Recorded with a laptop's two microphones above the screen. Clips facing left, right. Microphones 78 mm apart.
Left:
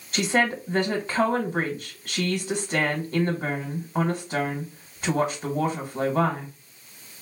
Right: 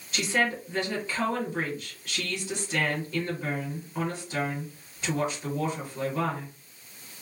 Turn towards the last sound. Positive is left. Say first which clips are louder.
# left 4 dB
turn(degrees=50)  # may be behind; listen again after turning